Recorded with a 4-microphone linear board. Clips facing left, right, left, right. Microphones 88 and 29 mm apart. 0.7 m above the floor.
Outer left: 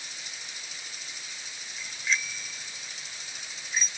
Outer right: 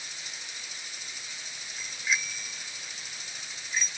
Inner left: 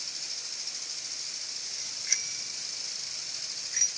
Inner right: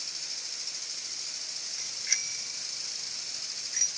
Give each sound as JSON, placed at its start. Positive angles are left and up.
{"t": 1.8, "sound": "a bicycle bell", "side_deg": -15}